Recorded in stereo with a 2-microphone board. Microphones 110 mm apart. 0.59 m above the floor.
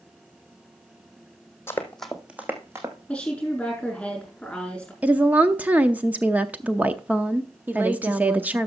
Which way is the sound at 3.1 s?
10° left (ahead or behind).